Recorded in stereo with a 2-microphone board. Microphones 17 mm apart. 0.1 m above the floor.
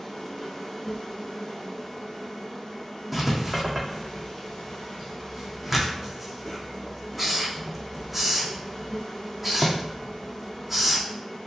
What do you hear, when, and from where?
0.0 s an insect: 20° left (ahead or behind), 1.2 m
3.1 s writing: 5° right (ahead or behind), 1.1 m